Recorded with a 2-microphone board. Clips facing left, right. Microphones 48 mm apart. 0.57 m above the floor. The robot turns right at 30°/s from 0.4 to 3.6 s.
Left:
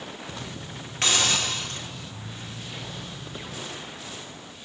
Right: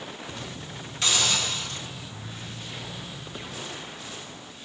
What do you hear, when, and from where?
1.0 s a hiss: 45° left (ahead or behind), 1.2 m